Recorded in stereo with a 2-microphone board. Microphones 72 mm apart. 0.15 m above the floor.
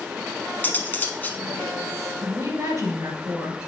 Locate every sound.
0.6 s cutlery clinking: 25° left (ahead or behind), 0.7 m
2.2 s a woman speaking: 50° right (ahead or behind), 2.5 m